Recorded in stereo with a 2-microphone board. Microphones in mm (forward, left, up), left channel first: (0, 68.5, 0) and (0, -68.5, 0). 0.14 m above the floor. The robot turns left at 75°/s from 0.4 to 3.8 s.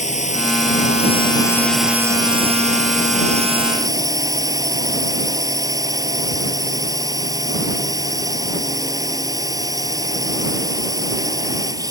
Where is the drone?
105° left; by 11.9 s 150° right.